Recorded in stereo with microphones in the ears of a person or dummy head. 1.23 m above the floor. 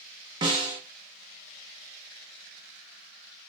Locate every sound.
0.4 s a snare drum: 25° right (ahead or behind), 0.5 m